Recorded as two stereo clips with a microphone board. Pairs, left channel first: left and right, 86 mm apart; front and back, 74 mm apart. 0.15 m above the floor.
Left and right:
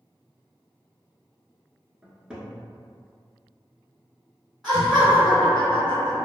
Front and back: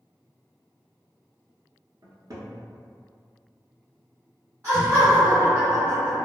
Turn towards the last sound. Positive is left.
turn(degrees=180)